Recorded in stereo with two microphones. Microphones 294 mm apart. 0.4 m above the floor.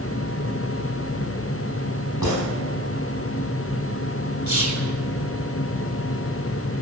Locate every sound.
2.2 s a gunshot: 85° left, 4.5 m
4.5 s whispering: 75° left (ahead or behind), 3.5 m